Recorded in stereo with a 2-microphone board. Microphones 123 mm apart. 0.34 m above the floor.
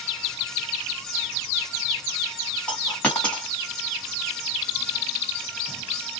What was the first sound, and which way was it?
A dropped coin, 10° left (ahead or behind).